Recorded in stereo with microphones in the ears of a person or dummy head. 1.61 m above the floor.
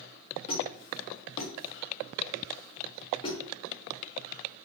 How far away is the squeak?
About 1.0 m.